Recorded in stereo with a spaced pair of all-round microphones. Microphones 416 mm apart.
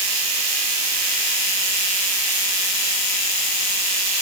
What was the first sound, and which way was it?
Only background noise.